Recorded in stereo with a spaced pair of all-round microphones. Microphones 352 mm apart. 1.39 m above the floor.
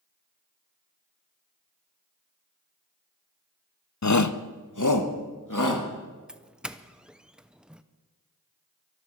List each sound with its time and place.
4.0 s a shout: 50° left (ahead or behind), 0.6 m; by 5.9 s 60° left (ahead or behind), 2.5 m
6.3 s a doorbell: centre (ahead or behind), 0.6 m